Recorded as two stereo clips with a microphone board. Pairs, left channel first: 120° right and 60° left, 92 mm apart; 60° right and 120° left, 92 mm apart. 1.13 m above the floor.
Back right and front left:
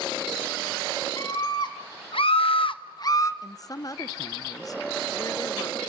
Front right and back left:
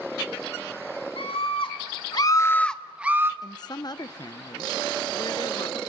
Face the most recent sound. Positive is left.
turn(degrees=-85)